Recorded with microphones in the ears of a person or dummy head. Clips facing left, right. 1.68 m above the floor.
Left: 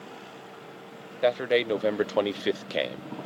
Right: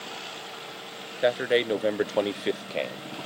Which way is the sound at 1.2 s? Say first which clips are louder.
Even; 5° right (ahead or behind).